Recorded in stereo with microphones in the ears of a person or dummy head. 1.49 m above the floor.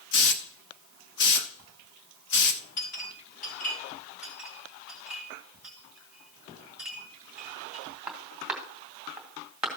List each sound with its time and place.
0.1 s a hiss: 60° left (ahead or behind), 1.0 m
2.8 s a clink: 50° left (ahead or behind), 5 m
4.2 s a clink: 5° right (ahead or behind), 1.9 m